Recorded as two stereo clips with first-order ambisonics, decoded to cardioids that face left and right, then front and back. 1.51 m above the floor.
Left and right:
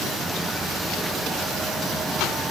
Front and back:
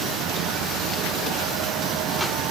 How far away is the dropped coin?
No dropped coin in this recording.